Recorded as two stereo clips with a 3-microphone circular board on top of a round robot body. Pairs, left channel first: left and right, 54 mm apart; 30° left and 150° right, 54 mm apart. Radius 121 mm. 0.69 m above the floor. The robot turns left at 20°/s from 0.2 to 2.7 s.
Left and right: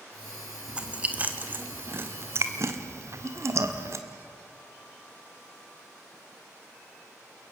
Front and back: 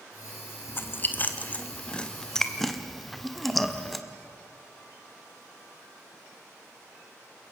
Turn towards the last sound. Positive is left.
turn(degrees=-60)